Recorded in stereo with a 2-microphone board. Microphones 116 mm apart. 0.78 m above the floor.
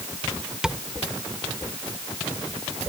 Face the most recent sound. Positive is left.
turn(degrees=-5)  # may be behind; listen again after turning